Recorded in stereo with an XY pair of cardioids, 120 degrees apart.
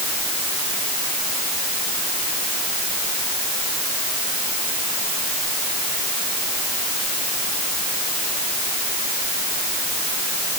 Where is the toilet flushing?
I don't hear a toilet flushing.